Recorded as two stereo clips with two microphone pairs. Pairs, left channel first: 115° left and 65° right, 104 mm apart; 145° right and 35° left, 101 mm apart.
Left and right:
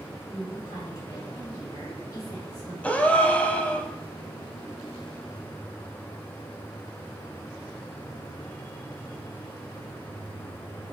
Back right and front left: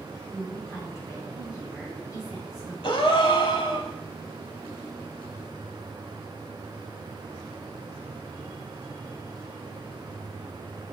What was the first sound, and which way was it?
A woman speaking, 165° left.